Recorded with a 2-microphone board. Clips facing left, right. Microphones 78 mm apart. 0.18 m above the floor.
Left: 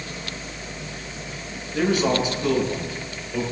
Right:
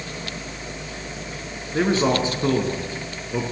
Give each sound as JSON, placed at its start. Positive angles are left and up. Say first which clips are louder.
{"t": 1.7, "sound": "a man speaking", "louder": "right 1 dB", "side_deg": -30, "distance_m": 2.0}